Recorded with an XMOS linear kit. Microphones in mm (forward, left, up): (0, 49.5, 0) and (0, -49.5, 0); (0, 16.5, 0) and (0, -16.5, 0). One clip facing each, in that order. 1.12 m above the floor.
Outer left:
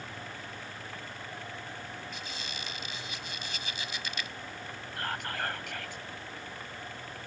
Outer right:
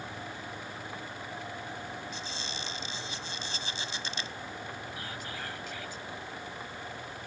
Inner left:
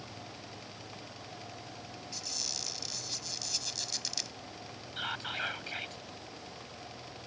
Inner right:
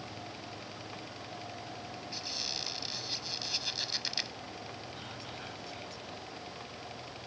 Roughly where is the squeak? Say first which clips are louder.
Outer right 2 dB, inner right 2 dB; right.